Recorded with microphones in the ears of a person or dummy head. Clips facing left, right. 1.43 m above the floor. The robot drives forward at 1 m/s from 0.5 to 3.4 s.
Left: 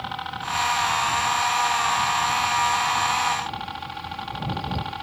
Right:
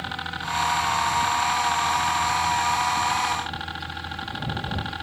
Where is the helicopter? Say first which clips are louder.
Left 2 dB; 25° right (ahead or behind).